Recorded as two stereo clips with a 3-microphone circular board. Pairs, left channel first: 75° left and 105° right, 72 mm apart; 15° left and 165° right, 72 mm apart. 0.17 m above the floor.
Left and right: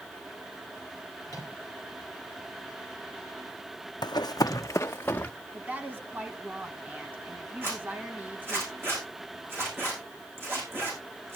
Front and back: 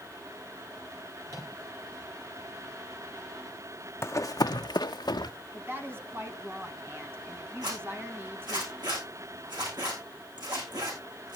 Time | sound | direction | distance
1.3 | a microwave | 130° right | 4.5 m
4.0 | running footsteps | 70° left | 0.7 m
5.5 | a woman speaking | 145° right | 1.7 m
7.6 | a zipper | 160° right | 9 m